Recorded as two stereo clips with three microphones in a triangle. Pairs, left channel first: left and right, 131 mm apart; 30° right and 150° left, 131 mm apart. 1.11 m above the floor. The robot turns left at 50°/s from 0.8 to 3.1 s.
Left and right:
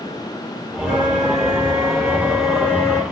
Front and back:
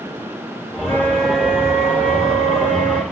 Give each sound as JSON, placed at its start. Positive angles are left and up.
{"t": 0.8, "sound": "a flute", "azimuth_deg": -95, "distance_m": 1.4}